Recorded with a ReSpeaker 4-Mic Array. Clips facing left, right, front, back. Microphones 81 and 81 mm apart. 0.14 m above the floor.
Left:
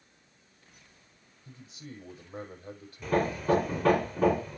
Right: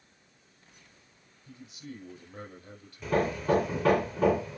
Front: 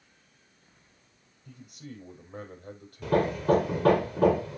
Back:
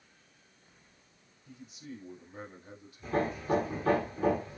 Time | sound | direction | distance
1.4 | a man speaking | 40° left | 6 m
3.0 | hammering | 5° left | 2.5 m